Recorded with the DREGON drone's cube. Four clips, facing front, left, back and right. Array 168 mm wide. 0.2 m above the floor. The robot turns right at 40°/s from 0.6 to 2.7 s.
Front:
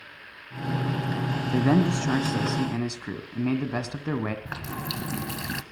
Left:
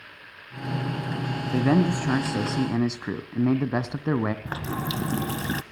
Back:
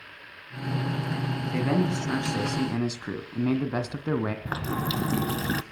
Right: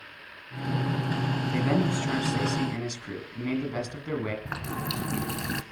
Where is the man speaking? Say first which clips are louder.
Left 6 dB, front 4 dB; 40° left, 1.6 m; by 4.3 s 90° left, 1.6 m.